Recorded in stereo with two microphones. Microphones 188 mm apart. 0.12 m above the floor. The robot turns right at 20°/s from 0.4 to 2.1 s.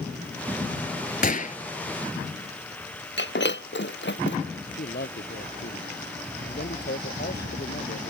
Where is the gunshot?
50° left (ahead or behind); by 1.6 s 45° left (ahead or behind).